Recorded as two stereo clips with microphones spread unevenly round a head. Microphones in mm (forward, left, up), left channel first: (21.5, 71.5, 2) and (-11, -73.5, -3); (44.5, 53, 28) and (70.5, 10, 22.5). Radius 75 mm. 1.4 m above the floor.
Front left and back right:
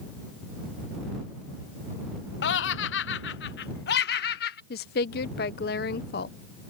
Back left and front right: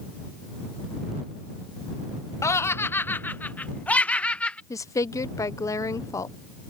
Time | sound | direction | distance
2.4 | laughter | 95° left | ?
4.7 | a woman speaking | 105° left | ?